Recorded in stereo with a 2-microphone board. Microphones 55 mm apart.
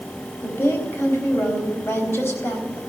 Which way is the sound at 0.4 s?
50° left (ahead or behind).